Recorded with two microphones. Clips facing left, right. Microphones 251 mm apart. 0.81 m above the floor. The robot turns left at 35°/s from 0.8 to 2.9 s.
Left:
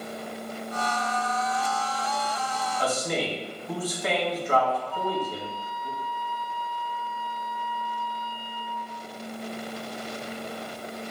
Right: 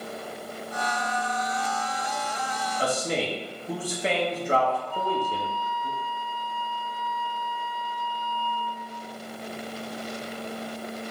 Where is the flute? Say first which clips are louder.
Even; 15° right (ahead or behind), 1.0 m.